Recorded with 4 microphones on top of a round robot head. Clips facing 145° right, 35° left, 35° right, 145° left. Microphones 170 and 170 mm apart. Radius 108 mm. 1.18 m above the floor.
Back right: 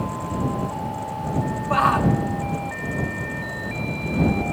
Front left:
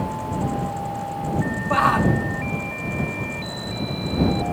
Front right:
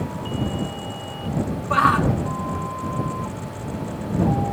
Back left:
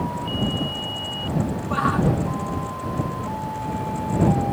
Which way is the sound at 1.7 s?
55° right.